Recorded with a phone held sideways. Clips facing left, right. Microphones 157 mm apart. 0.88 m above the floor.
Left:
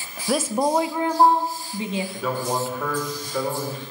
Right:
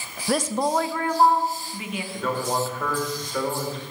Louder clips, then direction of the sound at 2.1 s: Right 3 dB; 5° left (ahead or behind).